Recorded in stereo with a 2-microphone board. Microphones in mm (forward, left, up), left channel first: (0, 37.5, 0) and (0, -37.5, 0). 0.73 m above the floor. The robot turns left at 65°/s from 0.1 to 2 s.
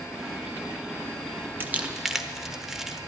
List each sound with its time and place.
1.6 s crumpling: 30° right (ahead or behind), 0.8 m; by 3.0 s 5° right (ahead or behind), 0.8 m